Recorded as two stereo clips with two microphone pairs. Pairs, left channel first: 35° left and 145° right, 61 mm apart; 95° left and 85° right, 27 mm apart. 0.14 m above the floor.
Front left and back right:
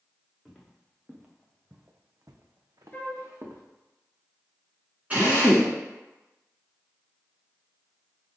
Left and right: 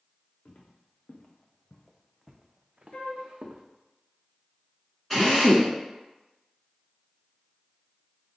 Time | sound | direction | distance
0.5 | footsteps | 125° left | 1.4 m
2.9 | a flute | 95° left | 0.8 m
5.1 | a drill | 170° left | 1.9 m